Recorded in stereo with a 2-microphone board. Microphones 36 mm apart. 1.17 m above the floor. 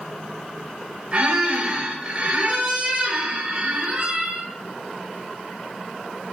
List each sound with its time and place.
1.1 s a squeak: 40° right (ahead or behind), 1.1 m